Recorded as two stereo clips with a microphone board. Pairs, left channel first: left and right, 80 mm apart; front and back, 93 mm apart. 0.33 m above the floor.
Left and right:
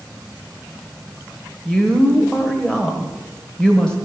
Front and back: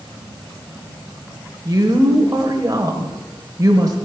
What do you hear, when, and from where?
1.6 s a woman speaking: 165° left, 1.0 m